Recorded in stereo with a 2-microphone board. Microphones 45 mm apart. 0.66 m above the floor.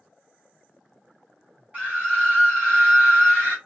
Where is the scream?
35° right (ahead or behind), 1.8 m.